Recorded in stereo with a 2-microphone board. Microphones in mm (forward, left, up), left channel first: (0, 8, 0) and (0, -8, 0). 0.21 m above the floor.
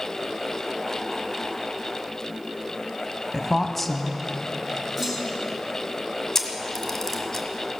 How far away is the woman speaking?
About 1.1 m.